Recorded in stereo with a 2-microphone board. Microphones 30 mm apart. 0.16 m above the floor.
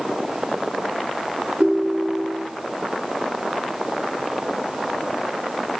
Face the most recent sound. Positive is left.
turn(degrees=-50)  # may be behind; listen again after turning